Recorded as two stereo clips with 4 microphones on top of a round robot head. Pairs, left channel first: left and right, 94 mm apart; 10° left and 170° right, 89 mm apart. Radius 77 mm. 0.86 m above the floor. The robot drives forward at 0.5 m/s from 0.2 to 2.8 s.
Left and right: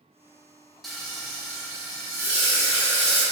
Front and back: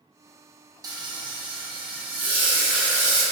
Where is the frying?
Straight behind, 0.5 m.